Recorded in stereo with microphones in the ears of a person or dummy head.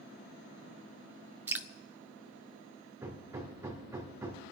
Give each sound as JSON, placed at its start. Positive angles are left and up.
{"t": 1.5, "sound": "dripping", "side_deg": -15, "distance_m": 0.6}
{"t": 3.0, "sound": "hammering", "side_deg": -20, "distance_m": 1.8}